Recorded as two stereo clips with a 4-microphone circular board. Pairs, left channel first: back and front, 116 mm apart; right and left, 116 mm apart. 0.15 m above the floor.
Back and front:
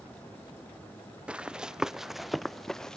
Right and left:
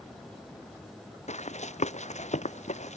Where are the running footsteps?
80° right; by 3.0 s 95° right.